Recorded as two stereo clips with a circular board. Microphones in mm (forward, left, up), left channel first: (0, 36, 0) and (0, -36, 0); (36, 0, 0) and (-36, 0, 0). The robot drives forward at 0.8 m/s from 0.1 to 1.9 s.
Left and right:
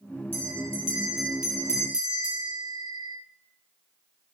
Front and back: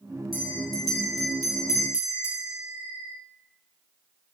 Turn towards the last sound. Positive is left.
turn(degrees=45)